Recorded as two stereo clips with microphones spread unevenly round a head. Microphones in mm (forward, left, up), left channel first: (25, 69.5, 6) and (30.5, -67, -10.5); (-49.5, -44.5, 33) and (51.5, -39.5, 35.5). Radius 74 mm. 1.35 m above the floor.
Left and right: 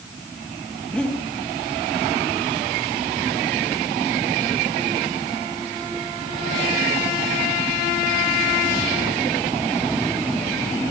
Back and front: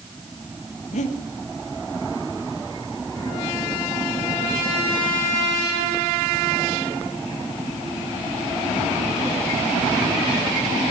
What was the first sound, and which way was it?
Breathing, 175° left.